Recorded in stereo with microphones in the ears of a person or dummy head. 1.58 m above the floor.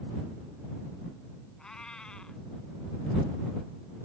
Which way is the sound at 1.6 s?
10° left (ahead or behind).